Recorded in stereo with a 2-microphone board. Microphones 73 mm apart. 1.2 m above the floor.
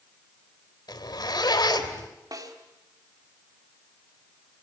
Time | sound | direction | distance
0.9 | a zipper | 80° left | 3 m
2.3 | a snare drum | 60° right (ahead or behind) | 3 m